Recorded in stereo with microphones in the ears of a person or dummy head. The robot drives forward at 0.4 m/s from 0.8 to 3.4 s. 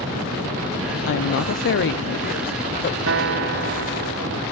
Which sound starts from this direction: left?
A woman speaking, at 1.1 s.